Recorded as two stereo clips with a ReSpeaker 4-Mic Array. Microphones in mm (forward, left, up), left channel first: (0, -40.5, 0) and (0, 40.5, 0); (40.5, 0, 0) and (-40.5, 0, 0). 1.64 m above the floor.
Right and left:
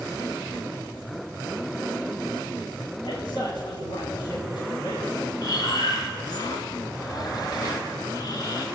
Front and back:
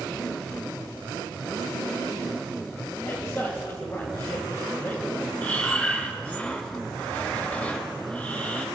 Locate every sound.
3.0 s a man speaking: 60° right, 8 m
5.4 s breathing: 70° right, 2 m